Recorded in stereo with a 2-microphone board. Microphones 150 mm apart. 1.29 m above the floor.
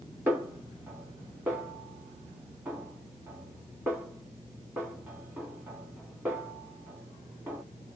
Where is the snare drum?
15° right (ahead or behind), 2 m.